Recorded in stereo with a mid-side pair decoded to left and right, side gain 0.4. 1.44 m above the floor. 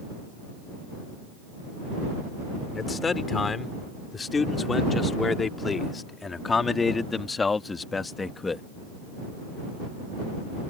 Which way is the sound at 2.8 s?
40° left.